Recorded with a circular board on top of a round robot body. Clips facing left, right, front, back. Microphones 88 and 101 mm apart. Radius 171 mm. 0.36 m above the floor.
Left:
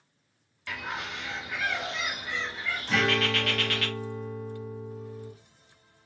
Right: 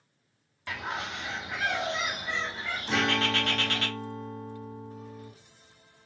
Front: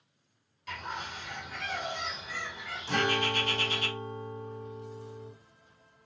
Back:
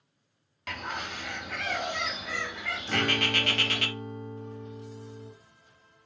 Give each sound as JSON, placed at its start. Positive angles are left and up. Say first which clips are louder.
{"t": 0.7, "sound": "a bird", "louder": "right 1 dB, back 2 dB", "azimuth_deg": -155, "distance_m": 0.6}
{"t": 2.9, "sound": "a guitar", "louder": "left 1 dB, front 1 dB", "azimuth_deg": -20, "distance_m": 2.0}